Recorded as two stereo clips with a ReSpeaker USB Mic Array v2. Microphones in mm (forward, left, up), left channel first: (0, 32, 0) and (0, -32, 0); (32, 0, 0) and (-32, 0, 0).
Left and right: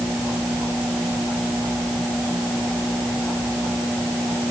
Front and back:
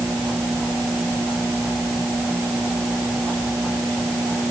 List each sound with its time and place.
Only background noise.